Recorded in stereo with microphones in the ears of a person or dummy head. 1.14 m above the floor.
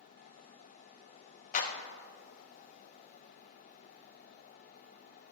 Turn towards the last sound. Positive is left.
turn(degrees=45)  # may be behind; listen again after turning